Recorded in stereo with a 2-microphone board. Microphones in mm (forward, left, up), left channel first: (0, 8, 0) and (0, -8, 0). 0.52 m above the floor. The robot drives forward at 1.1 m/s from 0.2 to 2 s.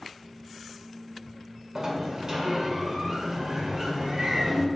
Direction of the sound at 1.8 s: 50° right (ahead or behind).